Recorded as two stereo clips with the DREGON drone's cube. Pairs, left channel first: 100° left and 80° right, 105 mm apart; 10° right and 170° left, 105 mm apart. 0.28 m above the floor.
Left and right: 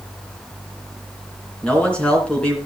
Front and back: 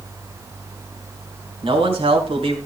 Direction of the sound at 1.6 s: Straight behind.